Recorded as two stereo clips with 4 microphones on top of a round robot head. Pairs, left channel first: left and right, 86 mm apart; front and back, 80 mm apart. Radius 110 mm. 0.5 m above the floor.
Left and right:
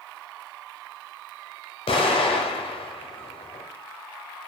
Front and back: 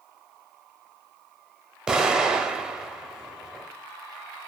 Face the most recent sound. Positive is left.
turn(degrees=100)